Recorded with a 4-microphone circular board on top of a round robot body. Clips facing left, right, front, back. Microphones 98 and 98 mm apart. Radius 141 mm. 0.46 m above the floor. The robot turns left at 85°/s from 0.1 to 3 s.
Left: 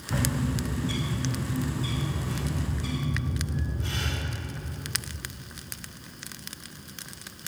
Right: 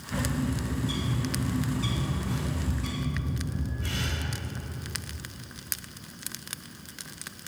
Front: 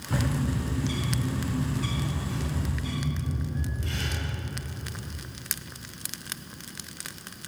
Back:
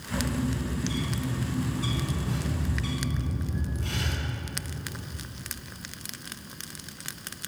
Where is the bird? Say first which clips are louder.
Left 1 dB, front 1 dB; 50° left, 4 m; by 4.2 s 165° left, 4 m.